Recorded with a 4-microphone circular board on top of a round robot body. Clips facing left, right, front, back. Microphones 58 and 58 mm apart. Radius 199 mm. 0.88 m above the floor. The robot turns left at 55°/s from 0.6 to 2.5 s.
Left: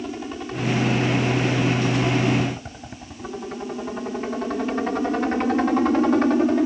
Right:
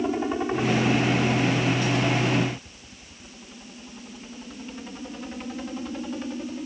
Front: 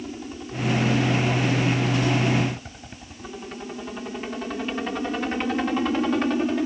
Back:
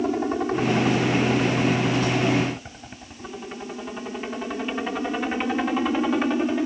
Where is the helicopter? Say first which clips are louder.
Right 5 dB, back 11 dB; 155° right; by 6.7 s 100° left.